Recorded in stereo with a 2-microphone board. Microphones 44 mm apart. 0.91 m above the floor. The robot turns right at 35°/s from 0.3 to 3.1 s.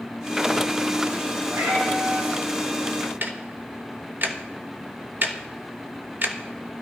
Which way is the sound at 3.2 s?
45° right (ahead or behind).